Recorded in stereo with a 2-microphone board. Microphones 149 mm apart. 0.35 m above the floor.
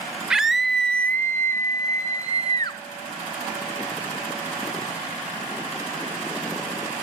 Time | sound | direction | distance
0.3 | a scream | 5° right (ahead or behind) | 0.8 m